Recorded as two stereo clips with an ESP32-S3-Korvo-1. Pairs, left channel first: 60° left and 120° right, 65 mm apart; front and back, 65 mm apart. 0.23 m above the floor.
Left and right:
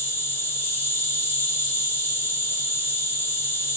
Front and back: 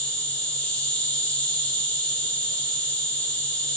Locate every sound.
0.0 s an insect: 55° left, 1.8 m